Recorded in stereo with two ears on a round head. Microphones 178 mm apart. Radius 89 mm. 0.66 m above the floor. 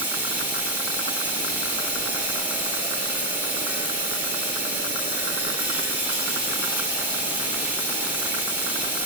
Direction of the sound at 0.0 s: 10° right (ahead or behind).